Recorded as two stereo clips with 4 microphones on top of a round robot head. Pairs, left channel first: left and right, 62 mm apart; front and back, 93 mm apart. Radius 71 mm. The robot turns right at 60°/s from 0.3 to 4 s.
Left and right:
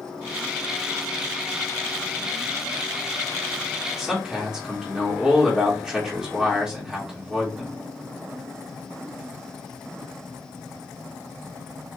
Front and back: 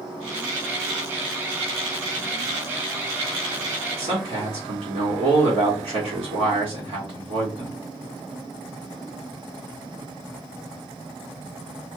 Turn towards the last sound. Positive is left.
turn(degrees=-170)